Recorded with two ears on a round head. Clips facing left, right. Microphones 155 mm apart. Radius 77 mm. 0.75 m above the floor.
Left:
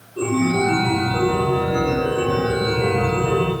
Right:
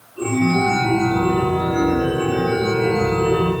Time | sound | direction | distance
0.2 | a chime | 65° left (ahead or behind) | 1.4 m